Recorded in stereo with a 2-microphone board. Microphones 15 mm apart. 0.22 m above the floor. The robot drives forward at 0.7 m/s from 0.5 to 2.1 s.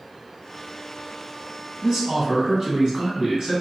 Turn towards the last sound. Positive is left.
turn(degrees=-40)  # may be behind; listen again after turning